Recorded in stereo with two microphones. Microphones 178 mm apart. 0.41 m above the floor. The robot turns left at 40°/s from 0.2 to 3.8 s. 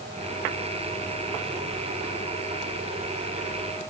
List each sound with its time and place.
Only background noise.